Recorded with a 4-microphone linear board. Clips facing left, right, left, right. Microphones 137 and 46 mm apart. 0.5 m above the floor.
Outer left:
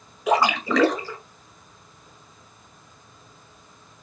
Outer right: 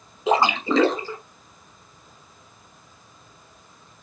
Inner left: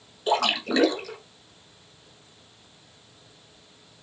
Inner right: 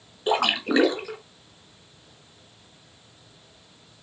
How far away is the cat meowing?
No cat meowing in this recording.